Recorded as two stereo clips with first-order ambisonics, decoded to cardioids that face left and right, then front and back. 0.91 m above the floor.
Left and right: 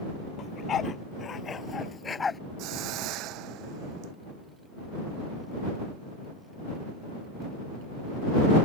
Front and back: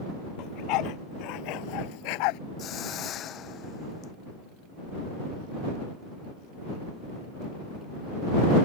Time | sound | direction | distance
0.4 | a dog barking | 30° left | ?
2.6 | a hiss | 55° right | ?